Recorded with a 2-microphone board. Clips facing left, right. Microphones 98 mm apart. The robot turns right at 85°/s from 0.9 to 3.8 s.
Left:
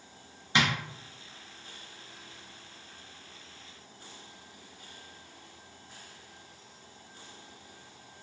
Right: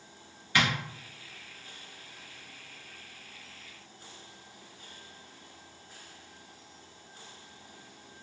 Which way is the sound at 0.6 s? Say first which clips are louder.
Even; 20° left (ahead or behind).